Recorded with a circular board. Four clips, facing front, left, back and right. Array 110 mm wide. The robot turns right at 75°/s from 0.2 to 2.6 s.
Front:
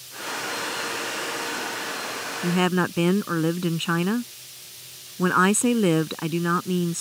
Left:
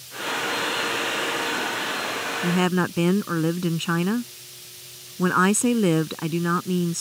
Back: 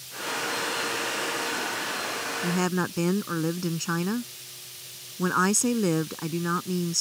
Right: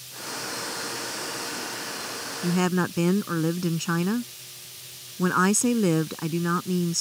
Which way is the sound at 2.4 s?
20° left.